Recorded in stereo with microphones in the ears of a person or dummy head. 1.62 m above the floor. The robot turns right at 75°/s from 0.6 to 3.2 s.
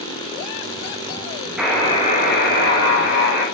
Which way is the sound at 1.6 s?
Straight ahead.